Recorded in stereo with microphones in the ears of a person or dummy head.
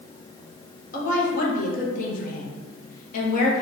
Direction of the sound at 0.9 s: 45° left (ahead or behind).